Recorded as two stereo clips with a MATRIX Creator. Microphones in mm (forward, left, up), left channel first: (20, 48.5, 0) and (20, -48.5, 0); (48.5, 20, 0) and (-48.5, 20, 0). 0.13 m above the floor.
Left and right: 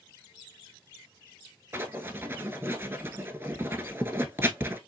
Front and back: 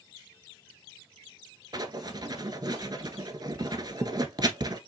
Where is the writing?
150° right, 0.7 m.